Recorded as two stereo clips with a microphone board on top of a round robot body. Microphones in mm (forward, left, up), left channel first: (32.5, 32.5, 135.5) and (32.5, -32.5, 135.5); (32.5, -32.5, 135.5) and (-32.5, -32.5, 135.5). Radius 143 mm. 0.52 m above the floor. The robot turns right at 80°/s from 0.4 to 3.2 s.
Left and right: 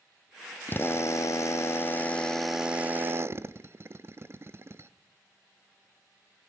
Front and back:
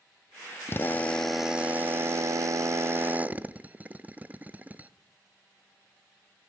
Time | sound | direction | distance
0.7 | a drill | 40° left | 0.9 m